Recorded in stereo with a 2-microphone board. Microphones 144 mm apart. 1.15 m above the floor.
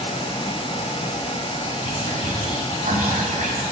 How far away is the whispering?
About 1.2 m.